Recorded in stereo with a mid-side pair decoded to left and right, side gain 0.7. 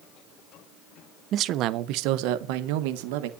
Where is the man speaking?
50° right, 0.8 m; by 3.3 s 80° right, 1.6 m.